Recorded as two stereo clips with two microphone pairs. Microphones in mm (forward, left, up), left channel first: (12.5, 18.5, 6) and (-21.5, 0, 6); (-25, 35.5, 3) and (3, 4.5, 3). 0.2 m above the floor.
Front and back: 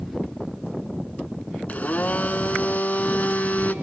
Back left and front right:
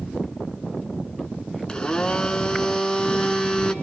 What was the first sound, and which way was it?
A blender, 65° left.